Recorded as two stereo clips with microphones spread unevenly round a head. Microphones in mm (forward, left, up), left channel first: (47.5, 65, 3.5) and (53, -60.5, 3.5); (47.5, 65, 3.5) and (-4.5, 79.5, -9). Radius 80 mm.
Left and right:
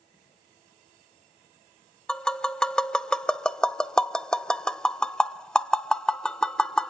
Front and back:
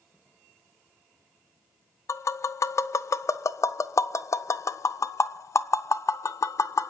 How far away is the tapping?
About 0.5 m.